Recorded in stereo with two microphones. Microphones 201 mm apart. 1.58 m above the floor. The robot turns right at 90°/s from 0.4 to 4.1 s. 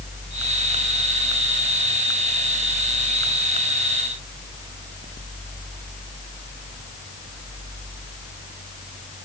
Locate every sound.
Only background noise.